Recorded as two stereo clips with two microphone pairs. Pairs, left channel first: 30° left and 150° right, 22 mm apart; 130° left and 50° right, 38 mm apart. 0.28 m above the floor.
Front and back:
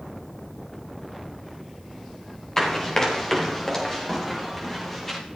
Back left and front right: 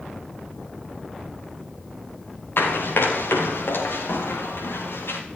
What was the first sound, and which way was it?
Running footsteps, 105° left.